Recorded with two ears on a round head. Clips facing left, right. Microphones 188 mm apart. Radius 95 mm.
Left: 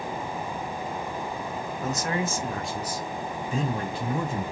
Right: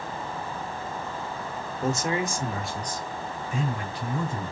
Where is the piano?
I don't hear a piano.